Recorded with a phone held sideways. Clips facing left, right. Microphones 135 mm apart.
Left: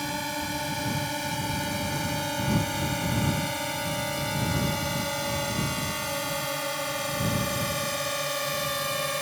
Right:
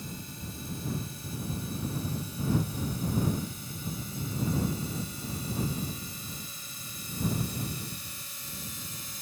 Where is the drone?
80° left.